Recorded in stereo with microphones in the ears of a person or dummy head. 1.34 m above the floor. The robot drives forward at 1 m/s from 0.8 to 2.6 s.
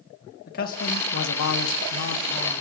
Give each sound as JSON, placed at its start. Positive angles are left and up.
{"t": 0.5, "sound": "a man speaking", "side_deg": 50, "distance_m": 1.2}